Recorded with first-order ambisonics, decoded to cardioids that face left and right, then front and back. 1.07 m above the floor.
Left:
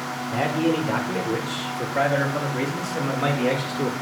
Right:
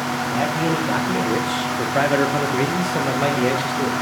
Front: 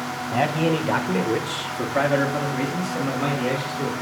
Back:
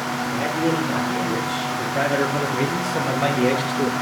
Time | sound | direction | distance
0.3 | a man speaking | 15° right | 1.3 m